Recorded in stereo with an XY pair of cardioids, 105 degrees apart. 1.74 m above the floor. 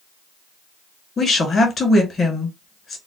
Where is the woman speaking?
45° left, 1.8 m.